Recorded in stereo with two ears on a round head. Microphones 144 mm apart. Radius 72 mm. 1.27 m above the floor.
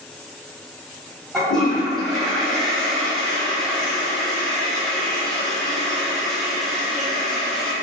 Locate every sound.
1.3 s a toilet flushing: 5° left (ahead or behind), 1.6 m